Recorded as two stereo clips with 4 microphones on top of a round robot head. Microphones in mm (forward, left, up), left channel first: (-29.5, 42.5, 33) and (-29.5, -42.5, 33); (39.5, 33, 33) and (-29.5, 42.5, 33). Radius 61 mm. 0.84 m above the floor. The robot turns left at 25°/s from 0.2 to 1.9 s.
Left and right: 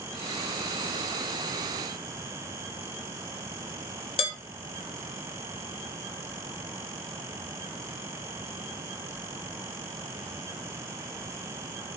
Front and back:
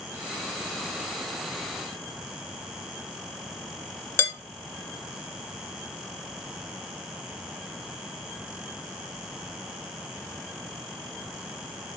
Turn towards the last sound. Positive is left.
turn(degrees=55)